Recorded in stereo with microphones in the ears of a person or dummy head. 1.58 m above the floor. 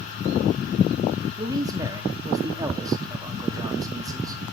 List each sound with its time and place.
1.4 s a man speaking: 20° right (ahead or behind), 1.0 m